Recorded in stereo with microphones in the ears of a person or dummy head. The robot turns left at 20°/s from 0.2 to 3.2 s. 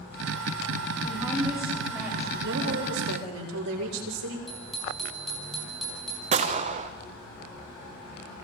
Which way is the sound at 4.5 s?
Centre (ahead or behind).